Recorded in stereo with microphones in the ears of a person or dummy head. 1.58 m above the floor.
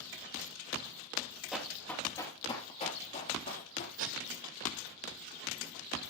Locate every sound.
1.5 s running footsteps: 10° right (ahead or behind), 3 m; by 3.9 s 45° left (ahead or behind), 4 m
4.0 s tape being pulled: 80° right, 2.5 m